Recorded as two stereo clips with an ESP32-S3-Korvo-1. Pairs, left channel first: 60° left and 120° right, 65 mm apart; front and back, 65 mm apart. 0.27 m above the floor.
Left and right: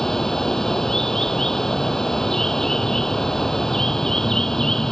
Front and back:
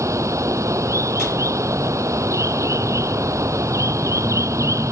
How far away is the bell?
I don't hear a bell.